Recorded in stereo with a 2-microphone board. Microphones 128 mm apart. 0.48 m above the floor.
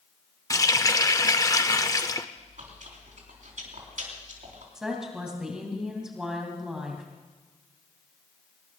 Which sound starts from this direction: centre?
A woman speaking, at 4.8 s.